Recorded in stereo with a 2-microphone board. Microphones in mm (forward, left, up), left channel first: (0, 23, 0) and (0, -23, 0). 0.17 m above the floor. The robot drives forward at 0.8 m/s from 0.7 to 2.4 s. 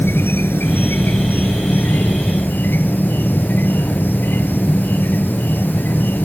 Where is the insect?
55° left (ahead or behind); by 6.2 s 45° left (ahead or behind).